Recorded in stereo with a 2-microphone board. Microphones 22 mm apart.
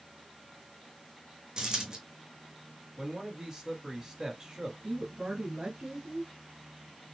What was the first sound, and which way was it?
A dropped coin, 35° right (ahead or behind).